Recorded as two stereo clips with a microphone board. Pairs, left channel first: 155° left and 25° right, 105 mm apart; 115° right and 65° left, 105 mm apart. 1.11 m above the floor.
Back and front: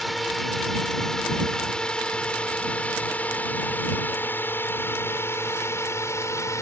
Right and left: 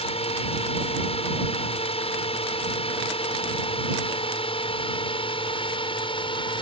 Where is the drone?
115° right; by 6.6 s 140° right.